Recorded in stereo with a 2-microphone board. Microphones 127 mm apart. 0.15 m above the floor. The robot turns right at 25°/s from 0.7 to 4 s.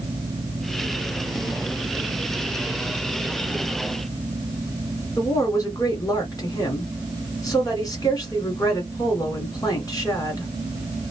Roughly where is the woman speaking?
Left.